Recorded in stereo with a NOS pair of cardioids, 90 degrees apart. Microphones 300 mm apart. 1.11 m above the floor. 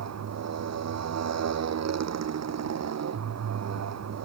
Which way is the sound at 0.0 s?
60° right.